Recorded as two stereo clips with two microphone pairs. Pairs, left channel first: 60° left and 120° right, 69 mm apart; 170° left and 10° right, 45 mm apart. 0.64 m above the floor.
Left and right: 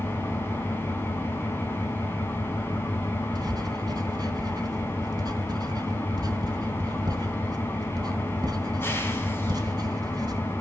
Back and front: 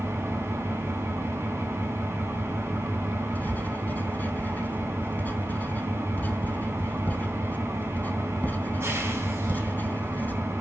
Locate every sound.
0.0 s an engine running: straight ahead, 5.5 m
3.4 s writing: 140° right, 3 m